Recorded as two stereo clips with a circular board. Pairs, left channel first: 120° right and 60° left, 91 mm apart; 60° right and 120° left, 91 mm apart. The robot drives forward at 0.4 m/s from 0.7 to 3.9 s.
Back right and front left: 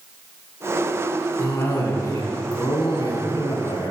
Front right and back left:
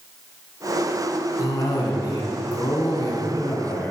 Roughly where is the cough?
Ahead right.